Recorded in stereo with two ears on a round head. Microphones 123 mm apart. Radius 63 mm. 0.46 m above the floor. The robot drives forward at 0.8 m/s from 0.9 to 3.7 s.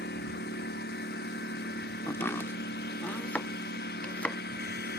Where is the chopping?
15° left (ahead or behind); by 4.4 s 10° left (ahead or behind).